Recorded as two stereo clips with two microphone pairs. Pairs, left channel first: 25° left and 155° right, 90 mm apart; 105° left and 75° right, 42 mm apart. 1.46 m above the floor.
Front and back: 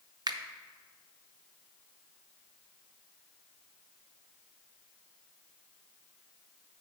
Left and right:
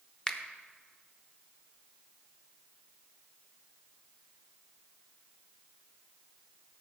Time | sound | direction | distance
0.3 | a finger snap | 170° left | 0.7 m